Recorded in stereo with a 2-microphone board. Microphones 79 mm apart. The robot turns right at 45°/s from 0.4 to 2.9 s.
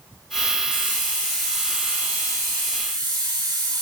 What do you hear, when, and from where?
0.7 s a hiss: 145° left, 4.5 m; by 3.8 s 115° right, 4.5 m